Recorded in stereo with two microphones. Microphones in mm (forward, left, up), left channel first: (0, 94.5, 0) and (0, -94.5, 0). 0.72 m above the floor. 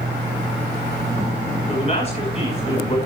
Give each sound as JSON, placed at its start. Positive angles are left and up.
{"t": 1.7, "sound": "a man speaking", "side_deg": 30, "distance_m": 6.5}